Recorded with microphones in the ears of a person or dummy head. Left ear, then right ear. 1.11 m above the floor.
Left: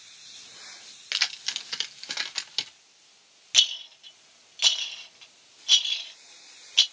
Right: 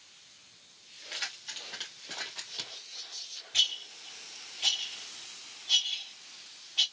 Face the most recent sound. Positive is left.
turn(degrees=45)  # may be behind; listen again after turning